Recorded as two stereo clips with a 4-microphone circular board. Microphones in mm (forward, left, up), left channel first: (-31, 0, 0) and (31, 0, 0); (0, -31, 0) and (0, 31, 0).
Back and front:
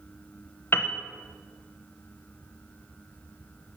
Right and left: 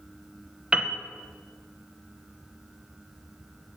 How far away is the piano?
About 0.7 m.